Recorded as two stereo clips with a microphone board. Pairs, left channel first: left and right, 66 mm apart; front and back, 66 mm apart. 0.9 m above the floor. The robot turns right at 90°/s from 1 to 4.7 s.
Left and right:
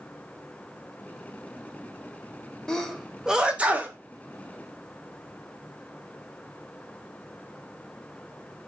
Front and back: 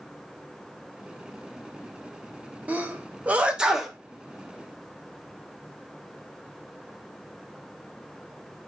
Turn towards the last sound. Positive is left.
turn(degrees=-25)